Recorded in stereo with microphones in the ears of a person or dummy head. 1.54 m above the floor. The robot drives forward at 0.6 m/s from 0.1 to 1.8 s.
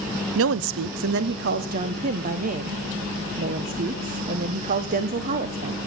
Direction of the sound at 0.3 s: 75° right (ahead or behind).